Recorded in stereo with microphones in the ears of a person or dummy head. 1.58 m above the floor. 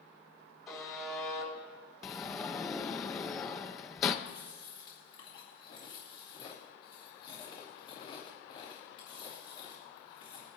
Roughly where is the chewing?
Left.